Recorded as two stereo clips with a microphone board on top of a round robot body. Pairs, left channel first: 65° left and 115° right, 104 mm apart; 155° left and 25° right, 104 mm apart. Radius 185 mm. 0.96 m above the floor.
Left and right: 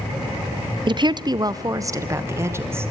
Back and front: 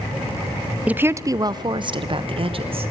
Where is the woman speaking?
95° right, 0.8 m; by 2.9 s 45° right, 1.8 m.